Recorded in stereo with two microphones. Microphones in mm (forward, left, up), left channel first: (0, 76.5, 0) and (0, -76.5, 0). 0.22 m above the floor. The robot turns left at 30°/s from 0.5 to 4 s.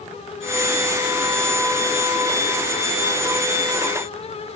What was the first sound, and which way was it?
Only background noise.